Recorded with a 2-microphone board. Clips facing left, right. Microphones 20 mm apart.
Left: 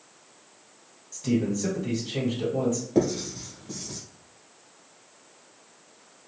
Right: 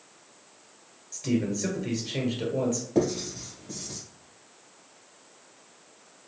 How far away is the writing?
About 1.5 m.